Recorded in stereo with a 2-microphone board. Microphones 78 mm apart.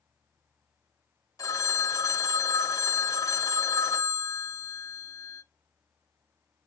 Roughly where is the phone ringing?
Left.